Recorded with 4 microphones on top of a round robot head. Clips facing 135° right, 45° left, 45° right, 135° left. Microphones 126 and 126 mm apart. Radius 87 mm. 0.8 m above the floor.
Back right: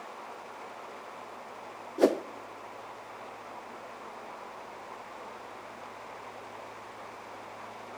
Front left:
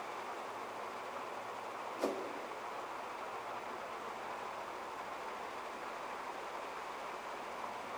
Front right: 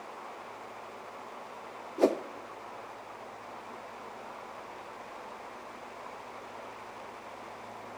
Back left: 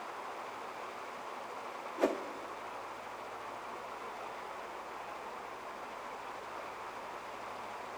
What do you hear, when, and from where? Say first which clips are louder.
2.0 s a whoosh: back right 14 dB, front right 6 dB; 105° right, 0.6 m